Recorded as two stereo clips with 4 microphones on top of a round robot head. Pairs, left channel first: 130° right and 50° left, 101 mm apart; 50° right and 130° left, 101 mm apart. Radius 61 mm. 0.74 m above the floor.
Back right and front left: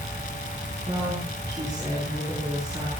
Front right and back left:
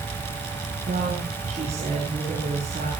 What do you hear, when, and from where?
0.9 s a woman speaking: 100° left, 9.5 m